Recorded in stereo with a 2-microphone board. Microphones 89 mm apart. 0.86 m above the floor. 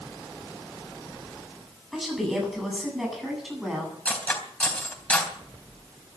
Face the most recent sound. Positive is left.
turn(degrees=15)  # may be behind; listen again after turning